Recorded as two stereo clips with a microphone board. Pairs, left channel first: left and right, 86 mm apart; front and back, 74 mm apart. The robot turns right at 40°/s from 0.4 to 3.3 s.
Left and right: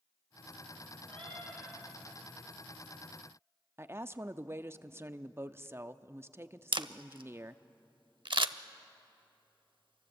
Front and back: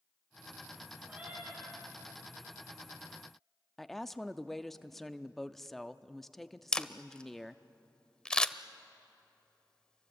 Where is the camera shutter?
80° right, 0.6 m.